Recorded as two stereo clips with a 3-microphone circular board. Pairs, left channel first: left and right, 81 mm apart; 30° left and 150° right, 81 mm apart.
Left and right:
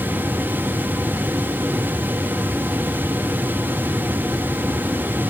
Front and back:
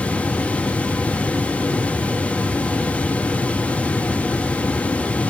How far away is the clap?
I don't hear a clap.